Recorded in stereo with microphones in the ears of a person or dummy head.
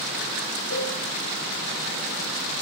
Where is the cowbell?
60° left (ahead or behind), 9 m.